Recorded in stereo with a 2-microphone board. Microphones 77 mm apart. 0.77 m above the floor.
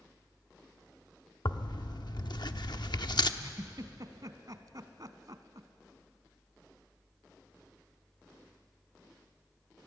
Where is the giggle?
55° right (ahead or behind), 1.0 m.